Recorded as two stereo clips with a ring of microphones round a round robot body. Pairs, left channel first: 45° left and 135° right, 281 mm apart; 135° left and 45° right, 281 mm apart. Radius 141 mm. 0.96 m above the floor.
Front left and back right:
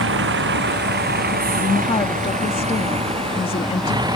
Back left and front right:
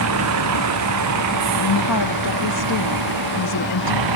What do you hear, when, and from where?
0.0 s a vehicle: 85° right; by 4.2 s 55° right
1.6 s a woman speaking: 115° left